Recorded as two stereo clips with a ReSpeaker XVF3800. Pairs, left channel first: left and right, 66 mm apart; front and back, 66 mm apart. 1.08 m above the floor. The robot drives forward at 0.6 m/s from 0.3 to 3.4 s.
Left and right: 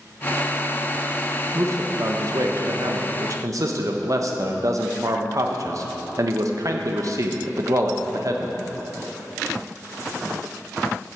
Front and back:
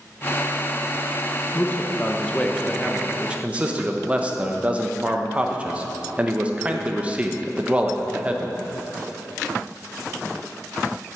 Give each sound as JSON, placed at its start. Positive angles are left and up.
{"t": 1.5, "sound": "a man speaking", "azimuth_deg": -50, "distance_m": 1.3}